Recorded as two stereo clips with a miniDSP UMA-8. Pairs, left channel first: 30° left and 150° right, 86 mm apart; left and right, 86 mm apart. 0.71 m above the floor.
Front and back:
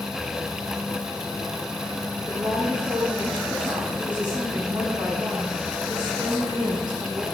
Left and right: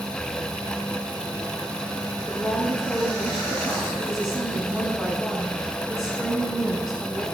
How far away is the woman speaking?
About 4.5 m.